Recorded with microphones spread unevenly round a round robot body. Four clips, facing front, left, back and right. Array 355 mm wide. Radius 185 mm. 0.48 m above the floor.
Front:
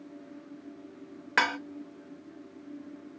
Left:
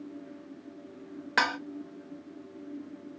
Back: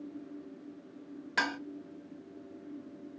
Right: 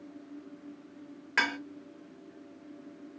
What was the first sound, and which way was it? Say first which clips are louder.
Dishes clattering: left 3 dB, front 5 dB; 30° left.